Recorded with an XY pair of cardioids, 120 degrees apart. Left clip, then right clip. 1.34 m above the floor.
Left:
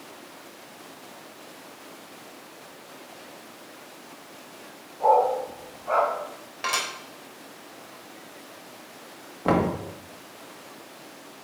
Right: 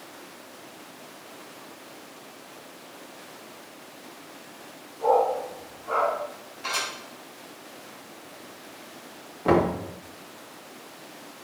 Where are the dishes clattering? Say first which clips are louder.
Left 2 dB; 70° left, 3.5 m.